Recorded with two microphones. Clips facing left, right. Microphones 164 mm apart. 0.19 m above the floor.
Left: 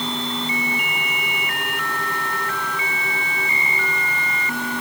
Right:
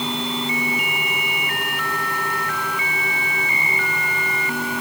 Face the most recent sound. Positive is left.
No sound to turn to.